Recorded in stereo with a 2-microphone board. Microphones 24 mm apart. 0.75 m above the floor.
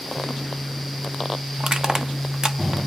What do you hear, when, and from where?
1.6 s crushing: 30° right (ahead or behind), 0.5 m